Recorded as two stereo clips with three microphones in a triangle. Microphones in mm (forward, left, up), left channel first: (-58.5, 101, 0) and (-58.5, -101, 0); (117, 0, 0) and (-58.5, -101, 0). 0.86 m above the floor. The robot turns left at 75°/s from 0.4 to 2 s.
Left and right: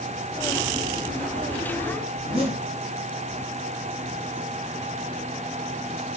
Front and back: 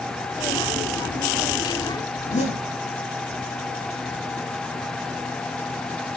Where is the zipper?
30° right, 5 m.